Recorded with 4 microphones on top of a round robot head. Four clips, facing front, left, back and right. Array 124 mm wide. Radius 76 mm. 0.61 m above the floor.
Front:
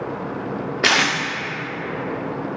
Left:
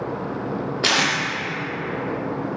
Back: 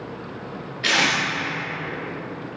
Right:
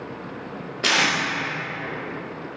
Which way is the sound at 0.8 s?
20° left.